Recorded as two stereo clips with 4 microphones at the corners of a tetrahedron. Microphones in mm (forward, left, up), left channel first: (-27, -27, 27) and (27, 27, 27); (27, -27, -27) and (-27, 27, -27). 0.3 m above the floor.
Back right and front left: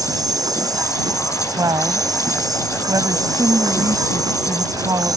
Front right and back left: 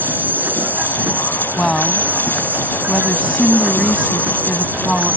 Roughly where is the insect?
Left.